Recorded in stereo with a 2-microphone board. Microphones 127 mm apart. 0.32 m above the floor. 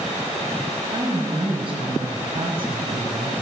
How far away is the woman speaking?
About 1.6 m.